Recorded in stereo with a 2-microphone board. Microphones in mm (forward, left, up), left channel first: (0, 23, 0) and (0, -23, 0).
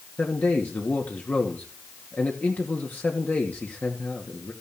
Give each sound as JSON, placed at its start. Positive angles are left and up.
{"t": 0.2, "sound": "a man speaking", "side_deg": 40, "distance_m": 3.0}